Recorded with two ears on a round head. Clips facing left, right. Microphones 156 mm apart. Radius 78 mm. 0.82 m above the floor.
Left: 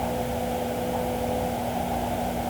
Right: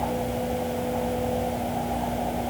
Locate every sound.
Only background noise.